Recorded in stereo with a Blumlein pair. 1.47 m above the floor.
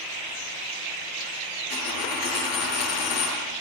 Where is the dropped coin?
40° left, 7 m.